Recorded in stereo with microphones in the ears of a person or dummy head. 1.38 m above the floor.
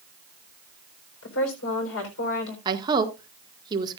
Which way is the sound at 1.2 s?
85° left.